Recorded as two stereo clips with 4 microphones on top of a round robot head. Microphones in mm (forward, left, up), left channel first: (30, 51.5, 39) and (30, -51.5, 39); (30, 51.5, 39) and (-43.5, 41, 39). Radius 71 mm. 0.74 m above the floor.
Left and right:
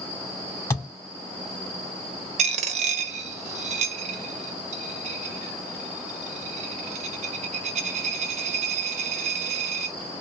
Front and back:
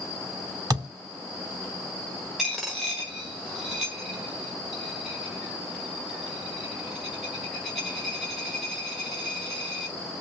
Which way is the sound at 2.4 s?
85° right.